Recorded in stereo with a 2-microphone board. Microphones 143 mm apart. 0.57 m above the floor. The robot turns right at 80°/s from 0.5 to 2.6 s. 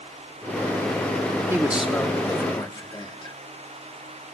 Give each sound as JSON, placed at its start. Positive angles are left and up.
{"t": 1.5, "sound": "a man speaking", "side_deg": -20, "distance_m": 0.8}